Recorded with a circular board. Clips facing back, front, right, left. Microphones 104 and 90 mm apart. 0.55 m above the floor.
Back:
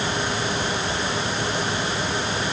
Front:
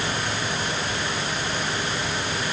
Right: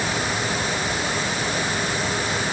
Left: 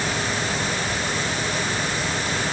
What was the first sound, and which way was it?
Only background noise.